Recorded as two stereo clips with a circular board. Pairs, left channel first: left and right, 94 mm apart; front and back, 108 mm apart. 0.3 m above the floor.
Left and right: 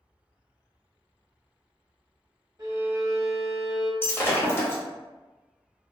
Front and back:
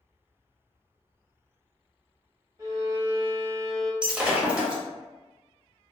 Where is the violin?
135° right, 0.7 m.